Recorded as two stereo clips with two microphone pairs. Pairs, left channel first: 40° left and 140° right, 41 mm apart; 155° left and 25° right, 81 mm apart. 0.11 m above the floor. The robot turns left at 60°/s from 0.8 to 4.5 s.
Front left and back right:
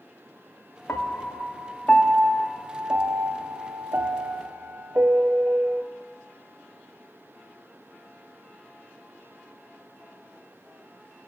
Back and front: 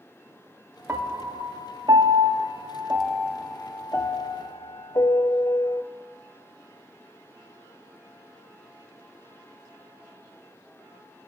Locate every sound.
0.9 s a piano: 35° left, 0.6 m; by 5.8 s straight behind, 0.6 m